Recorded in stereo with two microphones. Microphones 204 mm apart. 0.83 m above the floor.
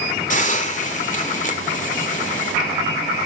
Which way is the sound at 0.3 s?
35° left (ahead or behind).